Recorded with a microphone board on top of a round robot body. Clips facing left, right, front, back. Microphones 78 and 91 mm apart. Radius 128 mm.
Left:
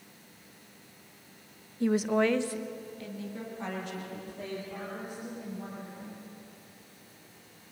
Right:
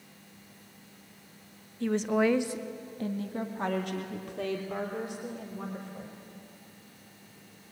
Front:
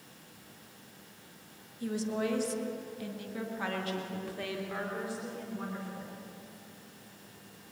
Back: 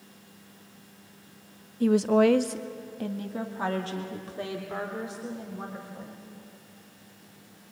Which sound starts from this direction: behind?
A woman speaking, at 1.8 s.